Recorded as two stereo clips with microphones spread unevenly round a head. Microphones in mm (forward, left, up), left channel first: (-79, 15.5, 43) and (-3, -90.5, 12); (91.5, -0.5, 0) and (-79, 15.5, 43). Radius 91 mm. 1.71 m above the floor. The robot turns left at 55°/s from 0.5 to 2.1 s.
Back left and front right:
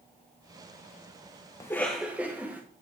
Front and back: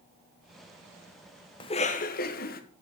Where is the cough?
65° left, 0.9 m; by 2.6 s 40° left, 0.9 m.